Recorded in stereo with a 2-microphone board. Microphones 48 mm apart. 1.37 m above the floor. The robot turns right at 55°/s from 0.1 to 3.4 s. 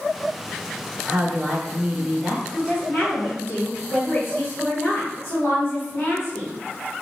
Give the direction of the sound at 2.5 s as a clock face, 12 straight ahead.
11 o'clock.